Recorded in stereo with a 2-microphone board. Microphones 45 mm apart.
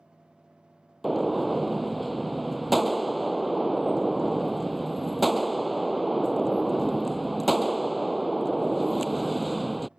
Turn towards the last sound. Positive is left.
turn(degrees=0)  # may be behind; listen again after turning